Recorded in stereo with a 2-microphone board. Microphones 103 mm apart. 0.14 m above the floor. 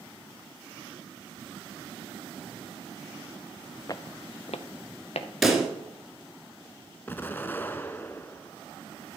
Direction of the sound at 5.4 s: Centre (ahead or behind).